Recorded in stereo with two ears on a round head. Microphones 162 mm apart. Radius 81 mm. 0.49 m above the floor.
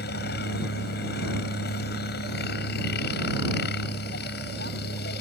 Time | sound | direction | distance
0.0 | a helicopter | 60° left (ahead or behind) | ?